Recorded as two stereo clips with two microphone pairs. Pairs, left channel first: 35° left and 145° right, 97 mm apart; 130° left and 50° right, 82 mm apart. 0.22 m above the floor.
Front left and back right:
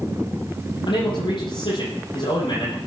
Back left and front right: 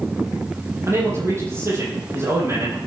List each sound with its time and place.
0.9 s a man speaking: 5° left, 10 m